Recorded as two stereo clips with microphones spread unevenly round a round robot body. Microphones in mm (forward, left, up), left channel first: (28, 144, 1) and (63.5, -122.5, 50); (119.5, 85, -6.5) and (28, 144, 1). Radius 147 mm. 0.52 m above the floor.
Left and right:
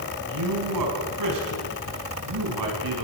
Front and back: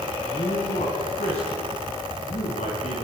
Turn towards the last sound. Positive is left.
turn(degrees=-80)